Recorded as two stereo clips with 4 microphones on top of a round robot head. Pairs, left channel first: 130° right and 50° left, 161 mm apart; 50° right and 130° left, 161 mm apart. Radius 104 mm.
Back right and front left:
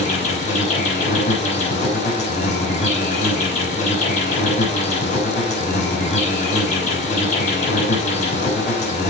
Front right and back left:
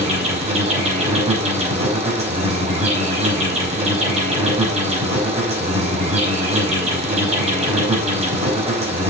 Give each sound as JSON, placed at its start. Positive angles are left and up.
{"t": 0.0, "sound": "an insect", "azimuth_deg": -175, "distance_m": 6.0}